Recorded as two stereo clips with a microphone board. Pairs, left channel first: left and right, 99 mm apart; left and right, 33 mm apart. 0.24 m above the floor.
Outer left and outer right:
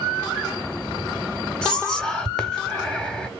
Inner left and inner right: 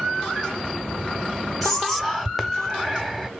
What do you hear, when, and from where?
1.6 s whispering: 10° left (ahead or behind), 1.3 m